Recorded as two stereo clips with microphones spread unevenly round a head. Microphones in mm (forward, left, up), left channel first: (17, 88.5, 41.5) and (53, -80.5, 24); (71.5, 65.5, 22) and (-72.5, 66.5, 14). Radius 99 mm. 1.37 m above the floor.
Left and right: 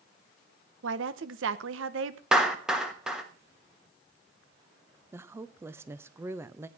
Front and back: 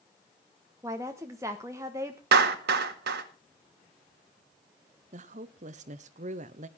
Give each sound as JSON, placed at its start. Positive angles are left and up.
{"t": 0.8, "sound": "a woman speaking", "azimuth_deg": -105, "distance_m": 1.0}
{"t": 2.3, "sound": "a clap", "azimuth_deg": -165, "distance_m": 1.2}
{"t": 5.1, "sound": "a woman speaking", "azimuth_deg": -150, "distance_m": 0.7}